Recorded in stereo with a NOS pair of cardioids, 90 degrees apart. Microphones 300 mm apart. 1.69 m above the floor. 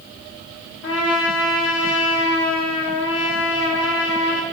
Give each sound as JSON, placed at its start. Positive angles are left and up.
{"t": 0.8, "sound": "a trumpet", "azimuth_deg": 60, "distance_m": 0.8}